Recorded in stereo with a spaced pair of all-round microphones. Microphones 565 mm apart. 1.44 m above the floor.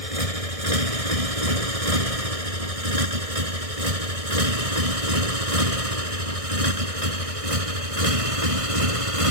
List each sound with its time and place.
0.0 s a motorcycle: 80° right; by 9.3 s 70° right (ahead or behind)